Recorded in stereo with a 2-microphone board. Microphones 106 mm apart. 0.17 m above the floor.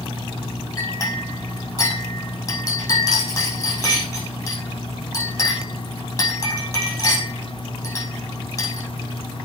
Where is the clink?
30° left (ahead or behind), 4.5 m.